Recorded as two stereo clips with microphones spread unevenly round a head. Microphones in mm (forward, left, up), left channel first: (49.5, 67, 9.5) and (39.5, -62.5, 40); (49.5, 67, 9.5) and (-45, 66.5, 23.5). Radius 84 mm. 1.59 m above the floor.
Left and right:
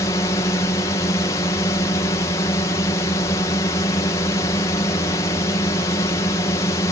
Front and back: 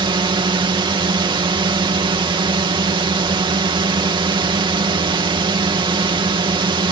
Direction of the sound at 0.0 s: 150° left.